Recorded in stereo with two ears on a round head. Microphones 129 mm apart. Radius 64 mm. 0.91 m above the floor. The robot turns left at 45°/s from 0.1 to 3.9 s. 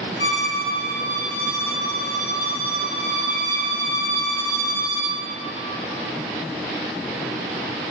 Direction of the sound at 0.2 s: 90° left.